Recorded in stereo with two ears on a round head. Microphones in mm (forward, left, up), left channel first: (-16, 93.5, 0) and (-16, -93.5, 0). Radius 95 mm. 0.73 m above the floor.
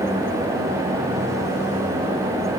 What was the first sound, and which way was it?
Only background noise.